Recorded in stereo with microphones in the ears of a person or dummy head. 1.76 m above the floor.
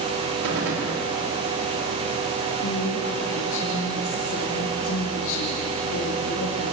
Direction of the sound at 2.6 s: 80° left.